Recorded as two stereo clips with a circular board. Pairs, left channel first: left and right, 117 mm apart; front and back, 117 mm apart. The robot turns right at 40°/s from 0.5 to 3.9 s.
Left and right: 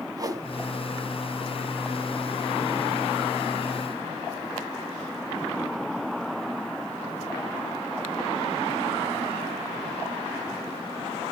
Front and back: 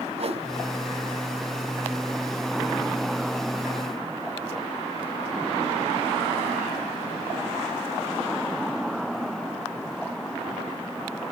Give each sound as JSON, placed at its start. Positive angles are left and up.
{"t": 0.2, "sound": "a whoosh", "azimuth_deg": -150, "distance_m": 1.0}